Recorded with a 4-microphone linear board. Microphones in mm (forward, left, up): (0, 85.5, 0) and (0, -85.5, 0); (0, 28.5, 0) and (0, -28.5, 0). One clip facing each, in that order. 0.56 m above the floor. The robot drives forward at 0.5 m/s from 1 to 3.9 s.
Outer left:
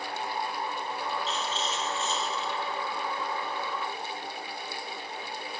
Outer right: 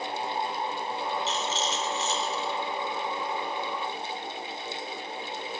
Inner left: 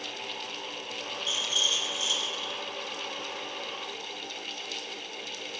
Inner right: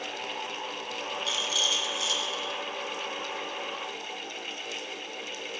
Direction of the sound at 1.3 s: 80° right.